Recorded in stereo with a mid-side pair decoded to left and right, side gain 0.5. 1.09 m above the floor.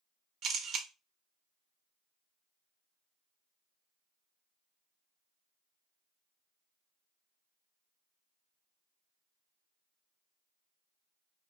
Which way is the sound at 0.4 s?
65° right.